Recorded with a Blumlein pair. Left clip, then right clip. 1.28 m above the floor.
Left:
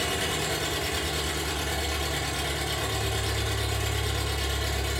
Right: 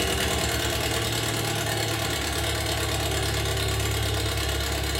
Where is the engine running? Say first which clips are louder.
Right 2 dB; 35° right, 0.8 m.